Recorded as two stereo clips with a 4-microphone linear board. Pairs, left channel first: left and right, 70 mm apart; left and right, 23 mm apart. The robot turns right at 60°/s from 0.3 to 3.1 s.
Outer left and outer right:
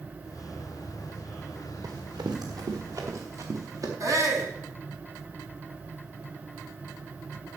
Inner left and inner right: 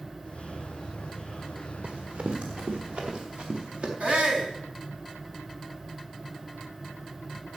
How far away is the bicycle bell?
I don't hear a bicycle bell.